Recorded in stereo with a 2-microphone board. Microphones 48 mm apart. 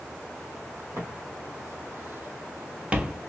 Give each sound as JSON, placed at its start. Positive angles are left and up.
{"t": 1.0, "sound": "footsteps", "side_deg": -60, "distance_m": 1.6}